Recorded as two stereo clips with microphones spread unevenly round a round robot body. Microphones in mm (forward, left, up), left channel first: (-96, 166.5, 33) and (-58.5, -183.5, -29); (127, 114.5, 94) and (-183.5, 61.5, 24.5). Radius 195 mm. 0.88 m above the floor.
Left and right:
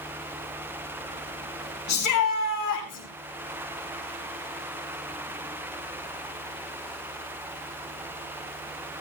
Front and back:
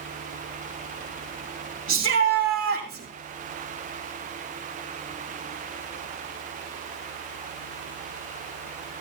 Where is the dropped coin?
No dropped coin in this recording.